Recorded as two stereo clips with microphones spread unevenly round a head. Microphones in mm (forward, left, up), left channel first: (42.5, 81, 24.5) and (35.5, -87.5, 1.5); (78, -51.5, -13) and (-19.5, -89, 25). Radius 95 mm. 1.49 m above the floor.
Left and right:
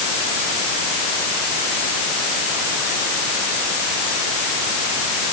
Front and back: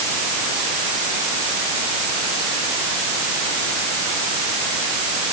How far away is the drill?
I don't hear a drill.